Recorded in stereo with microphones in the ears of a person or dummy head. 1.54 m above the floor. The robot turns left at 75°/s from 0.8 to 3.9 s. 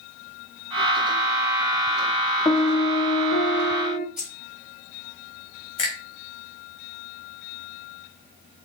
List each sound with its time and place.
2.5 s a piano: 160° left, 0.6 m; by 4.1 s 50° left, 0.6 m
4.2 s keys jangling: centre (ahead or behind), 3 m
5.8 s a finger snap: 30° left (ahead or behind), 3 m